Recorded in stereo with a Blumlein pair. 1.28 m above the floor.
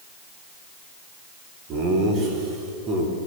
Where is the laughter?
35° right, 3 m; by 3.1 s 25° right, 4 m.